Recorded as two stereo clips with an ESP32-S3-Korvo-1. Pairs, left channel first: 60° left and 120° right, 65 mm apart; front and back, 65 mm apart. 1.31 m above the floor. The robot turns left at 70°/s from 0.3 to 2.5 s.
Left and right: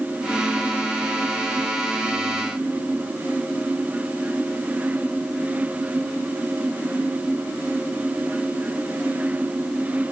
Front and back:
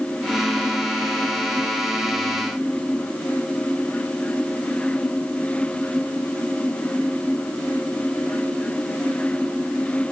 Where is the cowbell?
I don't hear a cowbell.